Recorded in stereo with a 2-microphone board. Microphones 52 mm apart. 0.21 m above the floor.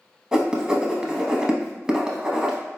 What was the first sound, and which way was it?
Writing, 15° right (ahead or behind).